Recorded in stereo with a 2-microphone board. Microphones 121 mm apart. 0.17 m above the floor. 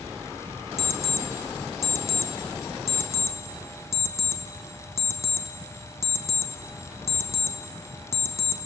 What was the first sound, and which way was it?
An alarm clock, 25° left (ahead or behind).